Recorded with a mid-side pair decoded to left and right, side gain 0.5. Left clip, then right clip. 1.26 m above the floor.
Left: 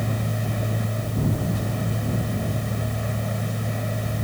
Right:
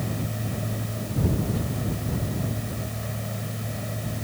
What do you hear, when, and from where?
0.0 s a machine running: 40° left